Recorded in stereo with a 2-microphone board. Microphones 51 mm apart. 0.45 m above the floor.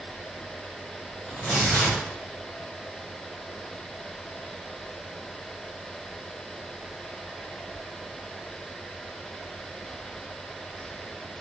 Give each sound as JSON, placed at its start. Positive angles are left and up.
{"t": 1.3, "sound": "tearing paper", "side_deg": 30, "distance_m": 1.2}